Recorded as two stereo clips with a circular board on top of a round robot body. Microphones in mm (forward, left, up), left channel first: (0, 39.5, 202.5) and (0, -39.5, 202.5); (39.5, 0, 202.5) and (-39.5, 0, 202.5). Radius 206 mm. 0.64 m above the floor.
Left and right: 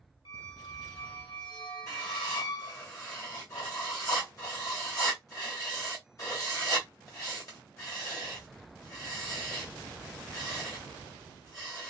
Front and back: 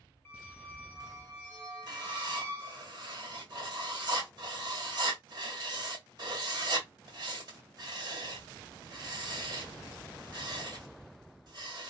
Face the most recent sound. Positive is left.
turn(degrees=135)